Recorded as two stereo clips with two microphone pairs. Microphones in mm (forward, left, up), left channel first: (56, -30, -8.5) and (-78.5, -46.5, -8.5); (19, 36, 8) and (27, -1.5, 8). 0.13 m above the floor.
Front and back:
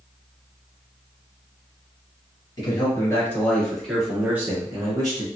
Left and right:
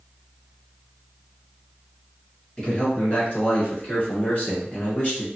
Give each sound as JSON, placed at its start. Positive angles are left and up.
{"t": 2.6, "sound": "a man speaking", "azimuth_deg": 55, "distance_m": 1.4}